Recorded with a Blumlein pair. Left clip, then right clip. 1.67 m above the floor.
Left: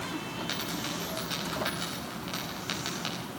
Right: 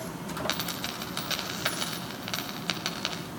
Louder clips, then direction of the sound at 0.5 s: Right 1 dB; 20° right.